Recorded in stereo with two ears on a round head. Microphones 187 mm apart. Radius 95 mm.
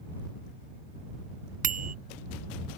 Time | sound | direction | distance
1.6 | a bicycle bell | 45° right (ahead or behind) | ?